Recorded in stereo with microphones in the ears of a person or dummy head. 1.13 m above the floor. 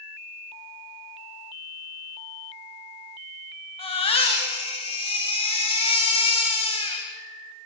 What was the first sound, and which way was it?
A baby crying, 30° left (ahead or behind).